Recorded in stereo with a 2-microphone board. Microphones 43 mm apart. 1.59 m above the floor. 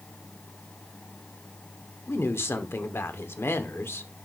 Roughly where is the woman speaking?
Left.